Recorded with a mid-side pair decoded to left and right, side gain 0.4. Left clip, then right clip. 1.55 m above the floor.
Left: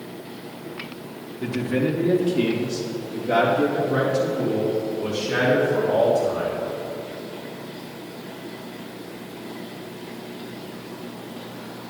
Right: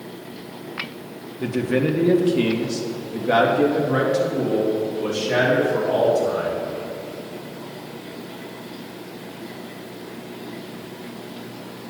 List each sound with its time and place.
1.4 s a man speaking: 35° right, 1.1 m; by 6.5 s 70° right, 3.5 m